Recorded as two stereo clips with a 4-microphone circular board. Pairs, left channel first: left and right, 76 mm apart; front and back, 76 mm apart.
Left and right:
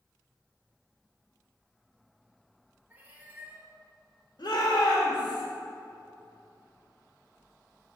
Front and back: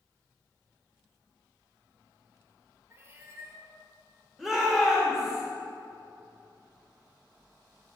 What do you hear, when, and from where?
2.9 s a cat meowing: 145° right, 1.0 m
4.4 s a shout: 95° left, 2.5 m